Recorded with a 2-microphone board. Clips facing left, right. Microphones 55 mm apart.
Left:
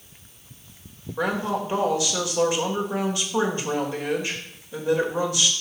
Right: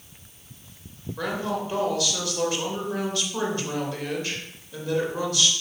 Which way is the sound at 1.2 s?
20° left (ahead or behind).